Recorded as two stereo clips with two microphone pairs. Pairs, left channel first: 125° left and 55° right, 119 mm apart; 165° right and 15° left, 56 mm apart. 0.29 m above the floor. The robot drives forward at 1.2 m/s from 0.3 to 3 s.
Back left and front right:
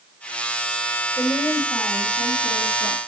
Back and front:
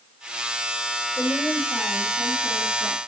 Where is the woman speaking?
170° left, 1.4 m; by 3.0 s straight behind, 3 m.